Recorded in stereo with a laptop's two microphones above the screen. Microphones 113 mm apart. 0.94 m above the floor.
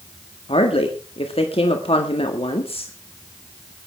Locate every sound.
0.5 s a woman speaking: 55° left (ahead or behind), 1.7 m